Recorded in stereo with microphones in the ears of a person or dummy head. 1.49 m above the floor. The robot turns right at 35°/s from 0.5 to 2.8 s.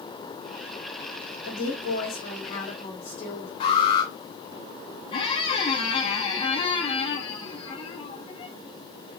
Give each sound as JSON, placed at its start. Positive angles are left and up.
{"t": 1.4, "sound": "a woman speaking", "azimuth_deg": 80, "distance_m": 4.5}
{"t": 3.6, "sound": "an alarm", "side_deg": 45, "distance_m": 4.0}
{"t": 5.1, "sound": "a squeak", "side_deg": 35, "distance_m": 1.8}